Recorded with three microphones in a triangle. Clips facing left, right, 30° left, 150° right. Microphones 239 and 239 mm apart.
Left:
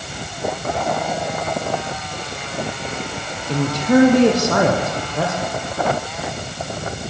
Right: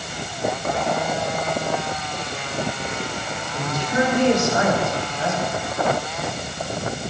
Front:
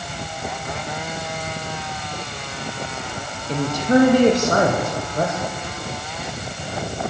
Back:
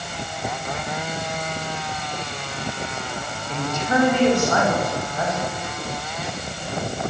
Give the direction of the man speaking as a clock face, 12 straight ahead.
9 o'clock.